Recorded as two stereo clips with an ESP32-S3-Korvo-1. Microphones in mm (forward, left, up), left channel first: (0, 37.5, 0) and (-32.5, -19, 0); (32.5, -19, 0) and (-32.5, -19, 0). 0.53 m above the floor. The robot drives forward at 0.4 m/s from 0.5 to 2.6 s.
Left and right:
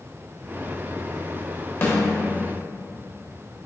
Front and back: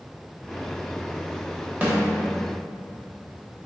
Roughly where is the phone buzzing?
I don't hear a phone buzzing.